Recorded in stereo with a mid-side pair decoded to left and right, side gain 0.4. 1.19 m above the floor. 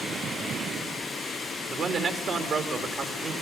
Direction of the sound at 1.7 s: 65° right.